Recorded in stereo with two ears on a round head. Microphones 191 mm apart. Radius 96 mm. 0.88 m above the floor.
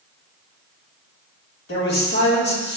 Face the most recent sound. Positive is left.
turn(degrees=55)  # may be behind; listen again after turning